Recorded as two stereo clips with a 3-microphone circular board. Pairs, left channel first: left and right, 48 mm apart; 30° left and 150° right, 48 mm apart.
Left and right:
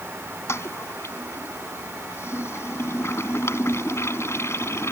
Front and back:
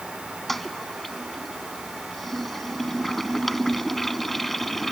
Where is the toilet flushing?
115° left.